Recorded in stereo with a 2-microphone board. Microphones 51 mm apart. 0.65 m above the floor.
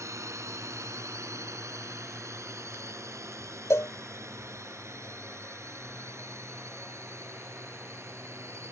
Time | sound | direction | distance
0.0 | a drone | 80° right | ?
3.7 | a cowbell | 75° left (ahead or behind) | ?